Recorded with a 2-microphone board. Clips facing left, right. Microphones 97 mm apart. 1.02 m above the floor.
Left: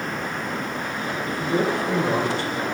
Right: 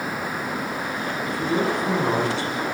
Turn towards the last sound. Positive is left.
turn(degrees=-85)